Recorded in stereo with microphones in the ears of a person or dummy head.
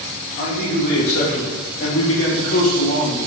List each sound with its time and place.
0.4 s a man speaking: 50° left (ahead or behind), 2.5 m; by 3.2 s 70° left (ahead or behind), 3.5 m